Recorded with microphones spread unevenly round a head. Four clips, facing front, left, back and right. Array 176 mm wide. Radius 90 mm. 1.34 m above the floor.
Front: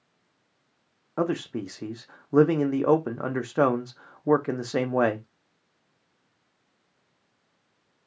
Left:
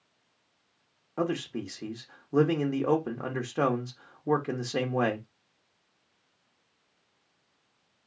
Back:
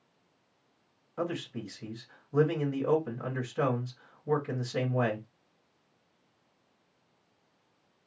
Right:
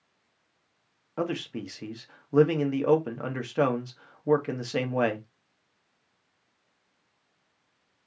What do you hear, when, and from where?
1.2 s a man speaking: 5° right, 0.9 m